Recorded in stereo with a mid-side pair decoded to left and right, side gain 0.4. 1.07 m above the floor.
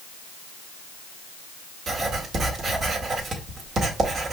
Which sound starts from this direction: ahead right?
Writing, at 1.9 s.